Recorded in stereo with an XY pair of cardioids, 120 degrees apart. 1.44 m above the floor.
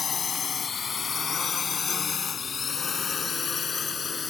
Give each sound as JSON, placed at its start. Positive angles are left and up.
{"t": 0.0, "sound": "a drone", "azimuth_deg": 35}